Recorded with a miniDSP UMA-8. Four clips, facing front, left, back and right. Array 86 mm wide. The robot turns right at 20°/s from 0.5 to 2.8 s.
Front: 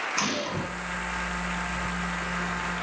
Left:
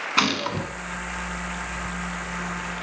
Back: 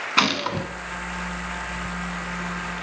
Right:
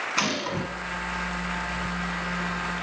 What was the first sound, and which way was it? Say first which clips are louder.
A gunshot: left 5 dB, back 9 dB; 150° left.